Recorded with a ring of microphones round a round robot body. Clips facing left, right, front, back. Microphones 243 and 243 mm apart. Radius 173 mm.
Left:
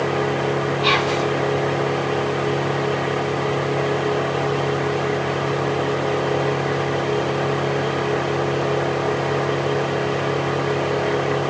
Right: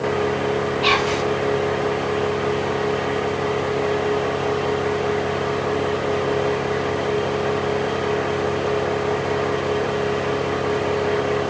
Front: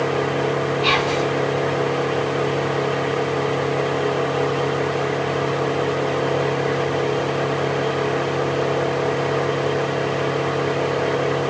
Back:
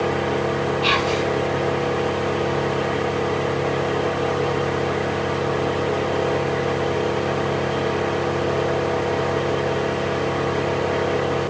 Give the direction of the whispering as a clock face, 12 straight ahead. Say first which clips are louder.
Even, front 1 dB; 4 o'clock.